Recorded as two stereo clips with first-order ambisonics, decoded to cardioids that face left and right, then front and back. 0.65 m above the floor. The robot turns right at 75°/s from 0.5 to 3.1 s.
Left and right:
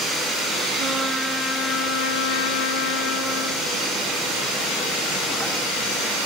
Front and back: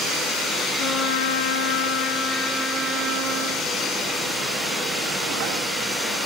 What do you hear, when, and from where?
0.8 s a trumpet: 40° right, 5 m; by 3.6 s 130° left, 5 m